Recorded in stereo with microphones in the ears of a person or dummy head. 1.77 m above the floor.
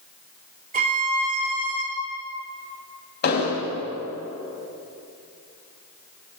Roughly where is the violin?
Right.